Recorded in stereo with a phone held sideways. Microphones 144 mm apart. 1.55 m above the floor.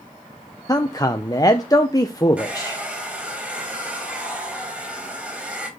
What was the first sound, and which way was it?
A man speaking, 25° left (ahead or behind).